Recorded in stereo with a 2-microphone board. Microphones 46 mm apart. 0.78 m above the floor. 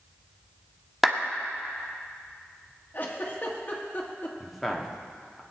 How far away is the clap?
About 1.4 m.